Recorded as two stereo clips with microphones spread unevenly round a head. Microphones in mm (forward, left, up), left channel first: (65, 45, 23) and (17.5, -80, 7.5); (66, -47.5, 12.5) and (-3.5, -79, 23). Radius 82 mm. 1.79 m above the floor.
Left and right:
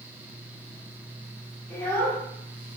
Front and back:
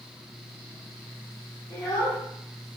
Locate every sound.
1.7 s a child speaking: 5° left, 1.2 m